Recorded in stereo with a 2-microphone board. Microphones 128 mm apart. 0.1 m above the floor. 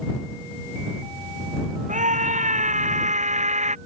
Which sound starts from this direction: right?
A scream, at 1.9 s.